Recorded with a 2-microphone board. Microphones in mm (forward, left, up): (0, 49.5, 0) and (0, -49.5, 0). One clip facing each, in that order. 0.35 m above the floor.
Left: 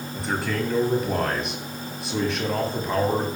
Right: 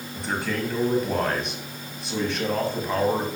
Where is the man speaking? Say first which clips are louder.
Left 1 dB; centre (ahead or behind), 2.5 m.